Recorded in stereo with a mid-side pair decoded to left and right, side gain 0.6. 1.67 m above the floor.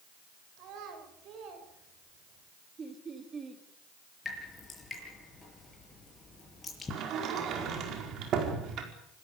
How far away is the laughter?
About 4.5 m.